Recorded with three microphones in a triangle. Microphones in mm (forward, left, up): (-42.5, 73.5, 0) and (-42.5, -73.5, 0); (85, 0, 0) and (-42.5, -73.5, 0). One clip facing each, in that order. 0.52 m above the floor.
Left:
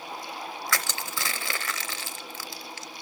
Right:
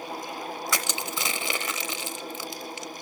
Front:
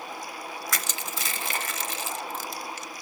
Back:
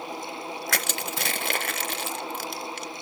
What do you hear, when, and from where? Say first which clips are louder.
0.7 s crushing: right 2 dB, back 4 dB; 160° right, 0.7 m